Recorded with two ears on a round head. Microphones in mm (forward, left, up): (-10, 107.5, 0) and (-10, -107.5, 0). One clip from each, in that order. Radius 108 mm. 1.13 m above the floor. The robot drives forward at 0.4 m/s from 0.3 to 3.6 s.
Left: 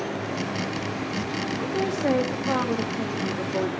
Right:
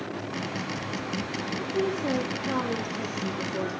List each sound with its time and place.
1.6 s a woman speaking: 55° left (ahead or behind), 1.9 m; by 3.7 s 40° left (ahead or behind), 2.5 m